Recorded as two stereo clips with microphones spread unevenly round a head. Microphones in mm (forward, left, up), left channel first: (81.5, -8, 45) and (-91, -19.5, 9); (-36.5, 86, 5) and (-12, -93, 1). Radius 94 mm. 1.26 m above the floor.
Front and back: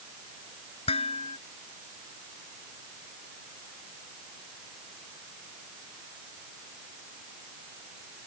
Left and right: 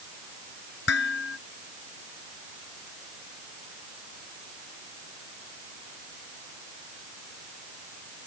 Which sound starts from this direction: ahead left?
Dishes clattering, at 0.9 s.